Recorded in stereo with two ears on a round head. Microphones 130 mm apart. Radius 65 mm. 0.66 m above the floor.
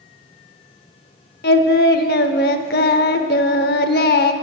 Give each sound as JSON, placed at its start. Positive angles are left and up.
{"t": 1.4, "sound": "singing", "side_deg": 80, "distance_m": 0.7}